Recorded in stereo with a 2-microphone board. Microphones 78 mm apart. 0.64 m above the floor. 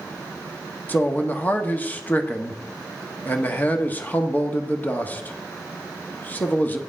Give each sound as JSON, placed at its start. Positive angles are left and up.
{"t": 0.9, "sound": "a man speaking", "side_deg": 20, "distance_m": 0.8}